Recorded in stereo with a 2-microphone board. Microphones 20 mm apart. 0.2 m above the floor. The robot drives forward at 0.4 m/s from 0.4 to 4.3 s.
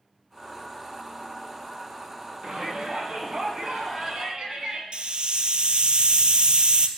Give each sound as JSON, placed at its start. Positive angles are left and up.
{"t": 2.4, "sound": "a shout", "side_deg": -40, "distance_m": 2.0}
{"t": 4.9, "sound": "a hiss", "side_deg": -55, "distance_m": 0.7}